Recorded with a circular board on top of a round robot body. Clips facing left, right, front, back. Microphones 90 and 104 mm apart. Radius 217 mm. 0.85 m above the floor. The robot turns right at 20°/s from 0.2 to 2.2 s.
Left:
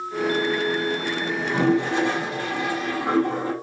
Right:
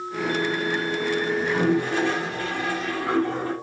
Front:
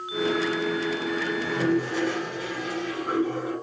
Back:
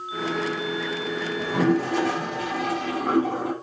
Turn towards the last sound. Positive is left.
turn(degrees=160)